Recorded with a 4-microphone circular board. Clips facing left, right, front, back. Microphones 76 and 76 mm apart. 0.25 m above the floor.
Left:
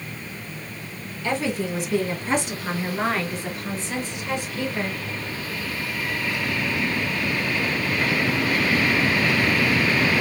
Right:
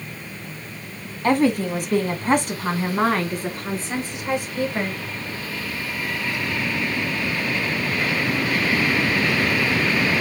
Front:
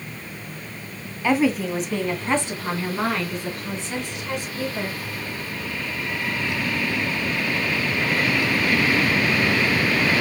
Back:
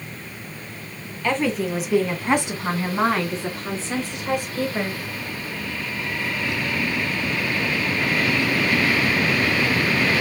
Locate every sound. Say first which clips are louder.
1.2 s a woman speaking: right 7 dB, front 2 dB; 80° right, 1.7 m; by 5.0 s 140° right, 3 m